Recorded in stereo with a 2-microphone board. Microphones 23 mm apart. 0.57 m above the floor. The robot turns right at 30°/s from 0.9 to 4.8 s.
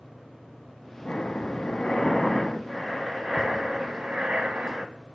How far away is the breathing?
About 1.0 m.